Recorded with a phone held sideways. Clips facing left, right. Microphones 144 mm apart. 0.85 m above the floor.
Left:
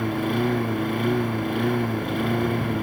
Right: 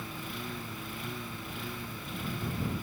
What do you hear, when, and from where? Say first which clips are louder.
0.0 s a lawn mower: left 18 dB; 65° left (ahead or behind)